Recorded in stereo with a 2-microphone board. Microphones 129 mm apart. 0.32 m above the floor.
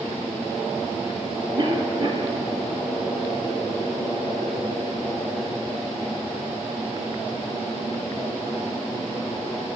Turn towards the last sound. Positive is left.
turn(degrees=-30)  # may be behind; listen again after turning